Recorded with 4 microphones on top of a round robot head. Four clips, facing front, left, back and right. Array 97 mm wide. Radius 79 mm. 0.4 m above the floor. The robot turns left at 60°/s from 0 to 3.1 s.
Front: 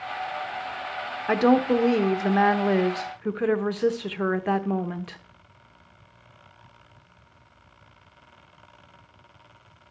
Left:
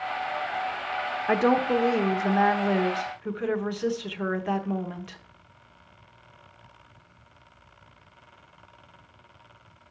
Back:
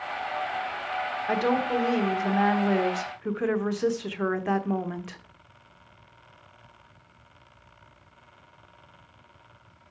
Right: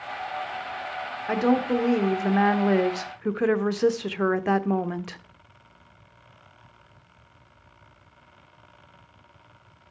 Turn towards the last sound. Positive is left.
turn(degrees=-75)